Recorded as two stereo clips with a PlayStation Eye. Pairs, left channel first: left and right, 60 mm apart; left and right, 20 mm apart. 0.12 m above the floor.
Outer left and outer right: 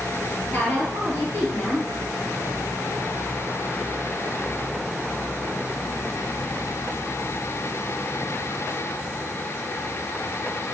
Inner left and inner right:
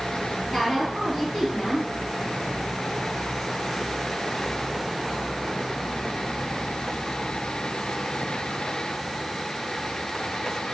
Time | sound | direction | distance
0.5 | a woman speaking | 40° left (ahead or behind) | 1.8 m